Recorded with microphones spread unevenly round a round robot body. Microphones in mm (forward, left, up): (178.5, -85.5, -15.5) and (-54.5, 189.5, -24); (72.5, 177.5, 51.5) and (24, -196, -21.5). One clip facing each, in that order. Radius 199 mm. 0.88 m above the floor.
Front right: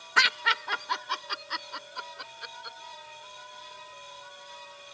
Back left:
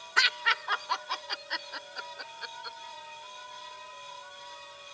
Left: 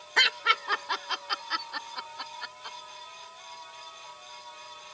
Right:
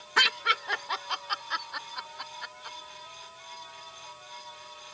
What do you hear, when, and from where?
0.2 s laughter: 35° right; by 2.8 s 40° left